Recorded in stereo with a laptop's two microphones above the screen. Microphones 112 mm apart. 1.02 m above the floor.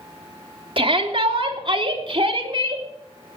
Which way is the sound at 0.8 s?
50° right (ahead or behind).